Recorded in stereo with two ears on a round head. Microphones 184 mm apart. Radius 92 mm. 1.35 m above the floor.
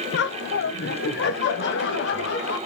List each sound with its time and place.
0.1 s laughter: 50° left (ahead or behind), 0.8 m; by 2.6 s 55° left (ahead or behind), 2.5 m